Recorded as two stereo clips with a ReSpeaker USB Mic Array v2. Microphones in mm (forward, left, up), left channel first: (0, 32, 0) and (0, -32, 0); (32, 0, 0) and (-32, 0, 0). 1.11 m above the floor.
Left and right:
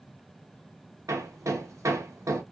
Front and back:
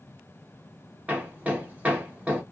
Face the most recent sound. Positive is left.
turn(degrees=-115)